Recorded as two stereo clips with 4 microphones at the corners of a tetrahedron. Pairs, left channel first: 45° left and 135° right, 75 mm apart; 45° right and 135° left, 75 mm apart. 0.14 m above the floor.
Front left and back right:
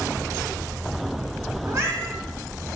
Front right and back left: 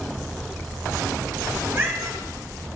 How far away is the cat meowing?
About 0.9 m.